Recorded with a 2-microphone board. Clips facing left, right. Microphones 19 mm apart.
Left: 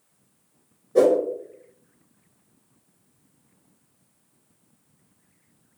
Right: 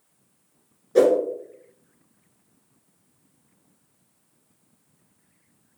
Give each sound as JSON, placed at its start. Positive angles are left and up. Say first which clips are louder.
{"t": 0.9, "sound": "a whoosh", "louder": "even", "side_deg": -75, "distance_m": 0.8}